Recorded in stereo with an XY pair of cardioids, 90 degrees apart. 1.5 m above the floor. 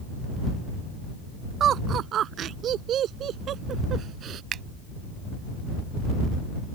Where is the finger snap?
70° right.